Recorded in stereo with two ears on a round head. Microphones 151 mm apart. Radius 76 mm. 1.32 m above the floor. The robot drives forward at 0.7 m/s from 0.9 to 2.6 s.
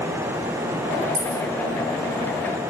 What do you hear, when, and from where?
1.1 s a dropped coin: 75° right (ahead or behind), 3.5 m